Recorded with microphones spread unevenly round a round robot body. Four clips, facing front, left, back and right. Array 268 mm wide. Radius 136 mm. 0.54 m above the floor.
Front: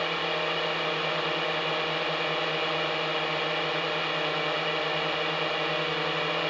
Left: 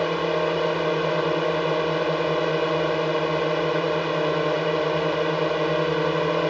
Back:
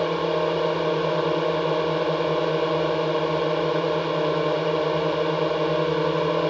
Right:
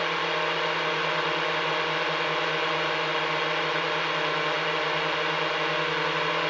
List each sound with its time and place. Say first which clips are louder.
0.0 s a drone: left 5 dB, back 7 dB; 145° left